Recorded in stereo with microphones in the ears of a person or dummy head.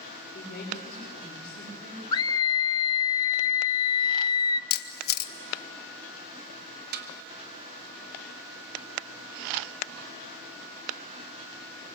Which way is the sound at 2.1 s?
25° left (ahead or behind).